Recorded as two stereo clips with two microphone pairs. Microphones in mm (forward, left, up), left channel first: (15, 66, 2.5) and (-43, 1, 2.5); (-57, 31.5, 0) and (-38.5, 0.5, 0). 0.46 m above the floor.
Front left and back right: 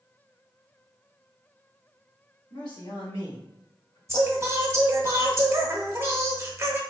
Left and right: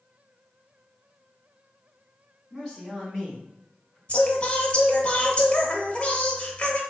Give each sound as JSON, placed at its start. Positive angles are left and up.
{"t": 2.5, "sound": "a man speaking", "azimuth_deg": 45, "distance_m": 1.7}
{"t": 4.1, "sound": "singing", "azimuth_deg": 170, "distance_m": 0.8}